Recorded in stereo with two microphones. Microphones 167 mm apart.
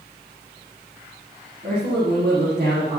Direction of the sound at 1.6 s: 65° right (ahead or behind).